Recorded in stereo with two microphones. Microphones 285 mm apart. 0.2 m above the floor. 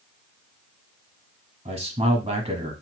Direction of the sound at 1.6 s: 20° right (ahead or behind).